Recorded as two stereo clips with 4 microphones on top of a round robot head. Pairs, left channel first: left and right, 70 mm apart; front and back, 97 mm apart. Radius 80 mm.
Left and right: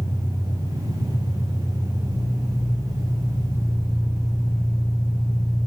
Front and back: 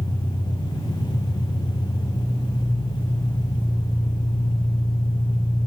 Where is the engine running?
40° left, 6 m.